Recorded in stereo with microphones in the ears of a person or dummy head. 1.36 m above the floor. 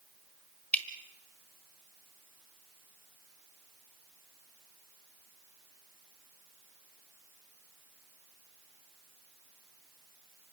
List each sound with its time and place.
0.7 s dripping: 5° left (ahead or behind), 1.4 m